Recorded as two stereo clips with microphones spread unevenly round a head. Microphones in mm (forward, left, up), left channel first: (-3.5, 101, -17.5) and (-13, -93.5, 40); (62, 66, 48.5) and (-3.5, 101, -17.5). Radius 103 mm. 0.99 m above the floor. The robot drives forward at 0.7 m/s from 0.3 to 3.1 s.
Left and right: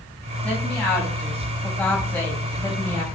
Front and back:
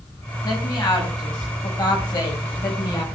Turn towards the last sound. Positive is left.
turn(degrees=5)